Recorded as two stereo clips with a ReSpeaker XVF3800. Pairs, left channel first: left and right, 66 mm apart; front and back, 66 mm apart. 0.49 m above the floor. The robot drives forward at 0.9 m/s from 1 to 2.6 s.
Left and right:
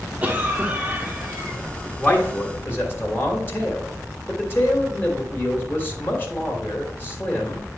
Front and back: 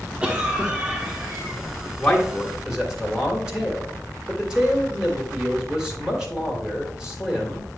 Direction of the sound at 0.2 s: 125° right.